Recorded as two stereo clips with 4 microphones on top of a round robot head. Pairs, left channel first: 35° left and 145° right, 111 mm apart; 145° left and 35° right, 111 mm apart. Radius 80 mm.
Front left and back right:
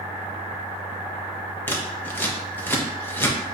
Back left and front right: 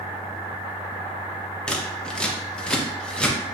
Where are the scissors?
75° left, 0.6 m.